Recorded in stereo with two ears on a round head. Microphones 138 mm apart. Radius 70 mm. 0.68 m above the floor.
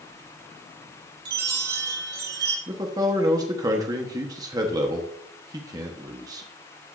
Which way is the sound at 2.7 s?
25° right (ahead or behind).